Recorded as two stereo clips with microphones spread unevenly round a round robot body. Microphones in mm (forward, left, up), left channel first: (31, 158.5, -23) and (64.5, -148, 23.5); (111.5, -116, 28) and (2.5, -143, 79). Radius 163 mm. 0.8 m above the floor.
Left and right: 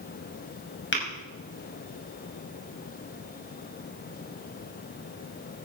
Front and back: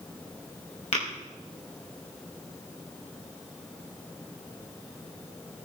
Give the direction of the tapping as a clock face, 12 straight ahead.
11 o'clock.